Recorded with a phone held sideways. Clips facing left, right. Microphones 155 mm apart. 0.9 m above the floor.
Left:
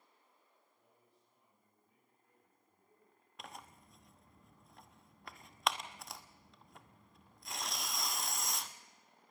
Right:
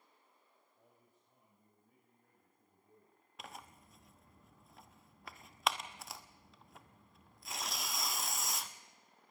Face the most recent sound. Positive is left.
turn(degrees=0)  # may be behind; listen again after turning